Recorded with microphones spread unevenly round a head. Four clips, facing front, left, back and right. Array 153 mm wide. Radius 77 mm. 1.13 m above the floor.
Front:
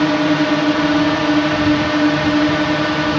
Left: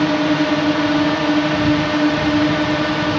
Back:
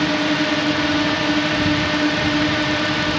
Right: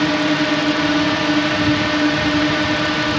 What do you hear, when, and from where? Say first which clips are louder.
0.0 s a drone: left 1 dB, front 5 dB; 5° left